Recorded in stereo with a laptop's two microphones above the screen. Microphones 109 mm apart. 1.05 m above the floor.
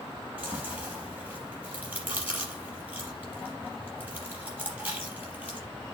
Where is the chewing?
15° right (ahead or behind), 4.5 m.